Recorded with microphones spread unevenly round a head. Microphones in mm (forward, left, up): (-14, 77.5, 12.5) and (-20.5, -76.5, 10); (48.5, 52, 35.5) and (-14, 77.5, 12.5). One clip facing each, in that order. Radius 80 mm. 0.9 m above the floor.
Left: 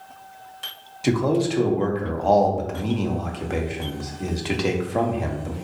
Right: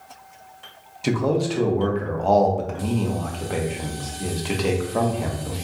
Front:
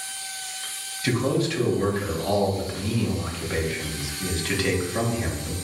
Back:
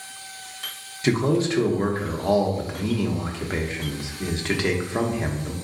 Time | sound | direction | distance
1.0 | a man speaking | 175° left | 0.8 m